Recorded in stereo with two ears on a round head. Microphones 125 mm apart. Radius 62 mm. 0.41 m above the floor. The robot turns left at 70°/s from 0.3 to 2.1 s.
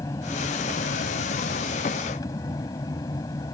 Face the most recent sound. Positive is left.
turn(degrees=30)